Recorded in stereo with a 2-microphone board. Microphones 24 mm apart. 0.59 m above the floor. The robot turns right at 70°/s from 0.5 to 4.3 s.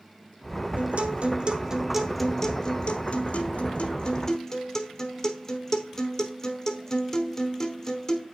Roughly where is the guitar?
Right.